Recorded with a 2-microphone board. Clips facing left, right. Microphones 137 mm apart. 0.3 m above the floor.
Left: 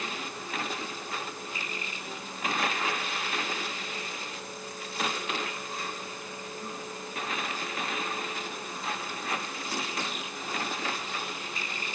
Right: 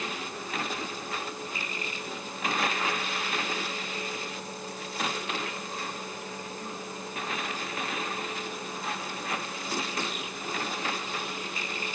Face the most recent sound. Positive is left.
No sound to turn to.